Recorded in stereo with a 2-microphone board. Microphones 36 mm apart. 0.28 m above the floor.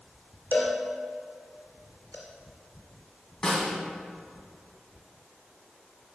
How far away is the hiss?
No hiss in this recording.